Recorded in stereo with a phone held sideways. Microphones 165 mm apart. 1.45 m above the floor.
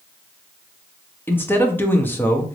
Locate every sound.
1.3 s a man speaking: 15° left (ahead or behind), 0.8 m